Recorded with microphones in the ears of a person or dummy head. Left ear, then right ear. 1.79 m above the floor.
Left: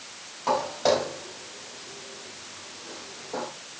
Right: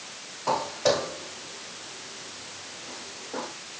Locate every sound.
0.5 s footsteps: 30° left (ahead or behind), 7 m; by 3.5 s 40° left (ahead or behind), 5.5 m